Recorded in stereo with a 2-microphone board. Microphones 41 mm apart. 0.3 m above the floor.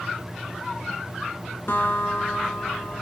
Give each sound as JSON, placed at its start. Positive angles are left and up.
{"t": 1.7, "sound": "a guitar", "side_deg": 65, "distance_m": 0.8}